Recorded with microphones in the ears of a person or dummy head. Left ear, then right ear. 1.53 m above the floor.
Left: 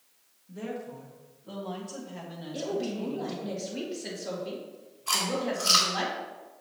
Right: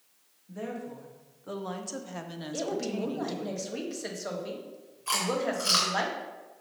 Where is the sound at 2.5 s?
65° right (ahead or behind), 1.5 m.